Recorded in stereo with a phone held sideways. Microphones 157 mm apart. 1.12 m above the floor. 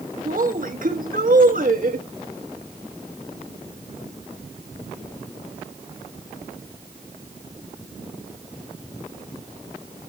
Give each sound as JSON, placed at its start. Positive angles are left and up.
{"t": 0.2, "sound": "a woman speaking", "side_deg": -60, "distance_m": 1.2}